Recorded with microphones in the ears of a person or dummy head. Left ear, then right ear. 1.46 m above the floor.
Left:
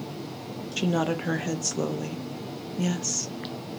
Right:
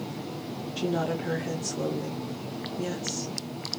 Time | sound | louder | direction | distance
0.8 | a woman speaking | left 2 dB | 35° left (ahead or behind) | 0.5 m